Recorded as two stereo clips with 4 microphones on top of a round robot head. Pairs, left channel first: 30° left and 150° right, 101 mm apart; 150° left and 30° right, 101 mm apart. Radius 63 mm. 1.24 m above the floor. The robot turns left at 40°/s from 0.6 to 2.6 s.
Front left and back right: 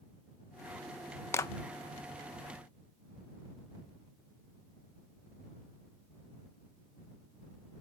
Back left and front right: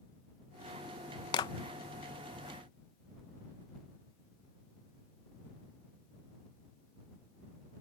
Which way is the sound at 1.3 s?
100° left.